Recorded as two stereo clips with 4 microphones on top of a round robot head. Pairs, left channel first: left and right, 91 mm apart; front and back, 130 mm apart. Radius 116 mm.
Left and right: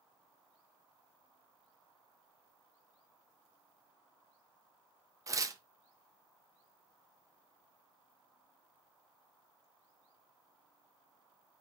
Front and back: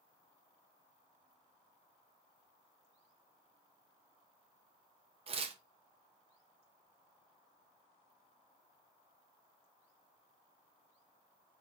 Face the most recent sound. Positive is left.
turn(degrees=-145)